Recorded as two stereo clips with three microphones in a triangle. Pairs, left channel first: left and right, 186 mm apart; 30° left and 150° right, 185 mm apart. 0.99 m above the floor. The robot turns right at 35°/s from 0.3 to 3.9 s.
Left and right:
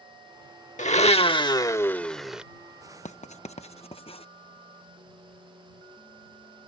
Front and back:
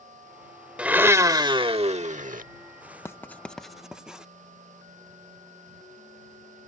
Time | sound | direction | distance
0.8 | a blender | 130° left | ?
3.0 | writing | 95° left | ?